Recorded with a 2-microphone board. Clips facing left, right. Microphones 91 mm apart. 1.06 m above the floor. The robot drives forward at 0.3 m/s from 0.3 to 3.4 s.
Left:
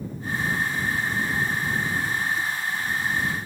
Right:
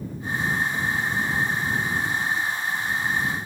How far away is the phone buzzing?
I don't hear a phone buzzing.